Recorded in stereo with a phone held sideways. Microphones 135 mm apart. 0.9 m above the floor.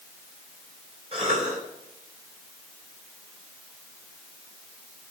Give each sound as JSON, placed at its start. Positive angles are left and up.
{"t": 1.1, "sound": "a cough", "side_deg": -45, "distance_m": 5.5}